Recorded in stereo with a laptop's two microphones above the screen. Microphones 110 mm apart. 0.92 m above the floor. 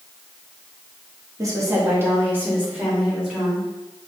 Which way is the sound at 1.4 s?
30° right (ahead or behind).